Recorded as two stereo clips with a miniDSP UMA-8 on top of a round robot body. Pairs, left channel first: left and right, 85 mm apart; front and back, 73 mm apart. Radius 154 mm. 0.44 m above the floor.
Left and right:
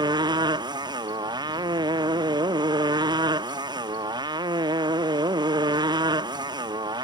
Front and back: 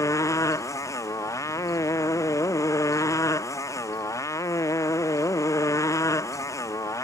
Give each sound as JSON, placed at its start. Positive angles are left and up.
{"t": 0.0, "sound": "a motorcycle", "azimuth_deg": -50}